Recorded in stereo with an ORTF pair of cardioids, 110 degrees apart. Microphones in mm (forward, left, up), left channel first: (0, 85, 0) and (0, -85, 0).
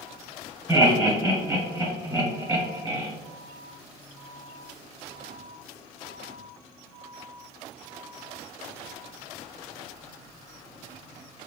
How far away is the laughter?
About 1.0 m.